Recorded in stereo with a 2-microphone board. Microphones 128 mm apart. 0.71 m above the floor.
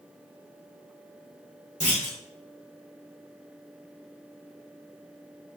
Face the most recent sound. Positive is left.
turn(degrees=60)  # may be behind; listen again after turning